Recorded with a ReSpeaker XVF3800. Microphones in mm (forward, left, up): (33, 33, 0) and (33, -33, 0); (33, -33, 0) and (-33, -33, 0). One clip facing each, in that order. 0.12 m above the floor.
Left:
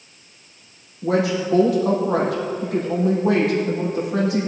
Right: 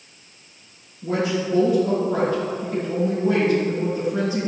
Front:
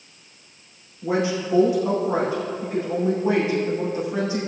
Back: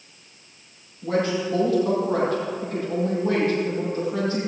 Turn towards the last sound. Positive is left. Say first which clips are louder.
# left 3 dB, even
turn(degrees=75)